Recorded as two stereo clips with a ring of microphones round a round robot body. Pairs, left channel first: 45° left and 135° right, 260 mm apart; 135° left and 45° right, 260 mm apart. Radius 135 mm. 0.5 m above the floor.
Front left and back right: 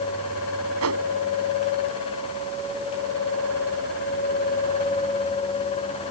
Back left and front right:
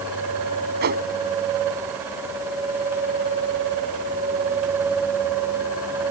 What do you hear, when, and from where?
0.8 s a whoosh: 100° right